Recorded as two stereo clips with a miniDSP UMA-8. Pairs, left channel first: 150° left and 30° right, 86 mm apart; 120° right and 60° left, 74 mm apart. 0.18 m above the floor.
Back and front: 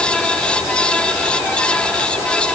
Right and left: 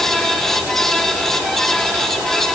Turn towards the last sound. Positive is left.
No sound to turn to.